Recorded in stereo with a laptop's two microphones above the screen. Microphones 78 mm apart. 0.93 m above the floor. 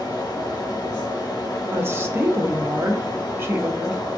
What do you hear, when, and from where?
0.0 s a fan: 55° left (ahead or behind), 0.8 m
1.7 s a woman speaking: 30° right (ahead or behind), 0.6 m